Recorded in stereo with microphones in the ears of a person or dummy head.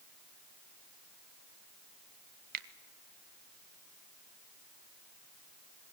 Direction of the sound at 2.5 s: 55° right (ahead or behind).